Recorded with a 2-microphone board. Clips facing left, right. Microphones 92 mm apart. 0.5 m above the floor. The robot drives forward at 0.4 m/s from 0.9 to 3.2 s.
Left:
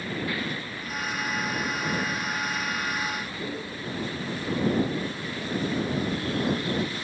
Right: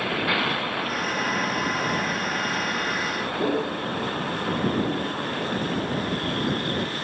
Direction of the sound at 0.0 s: 70° right (ahead or behind).